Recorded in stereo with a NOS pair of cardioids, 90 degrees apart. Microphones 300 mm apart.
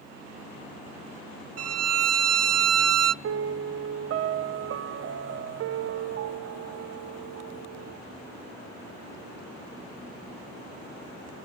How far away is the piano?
About 0.6 m.